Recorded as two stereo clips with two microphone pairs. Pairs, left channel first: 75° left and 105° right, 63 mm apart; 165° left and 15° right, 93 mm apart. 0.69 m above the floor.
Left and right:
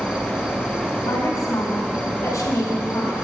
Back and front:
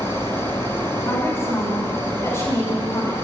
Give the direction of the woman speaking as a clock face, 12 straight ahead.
8 o'clock.